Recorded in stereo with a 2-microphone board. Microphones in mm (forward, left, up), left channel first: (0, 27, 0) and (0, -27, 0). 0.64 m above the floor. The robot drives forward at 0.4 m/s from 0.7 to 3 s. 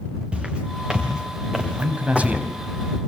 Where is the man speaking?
25° right (ahead or behind), 4 m.